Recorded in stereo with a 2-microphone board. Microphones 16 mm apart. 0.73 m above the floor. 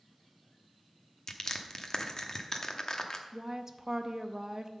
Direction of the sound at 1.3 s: 45° left (ahead or behind).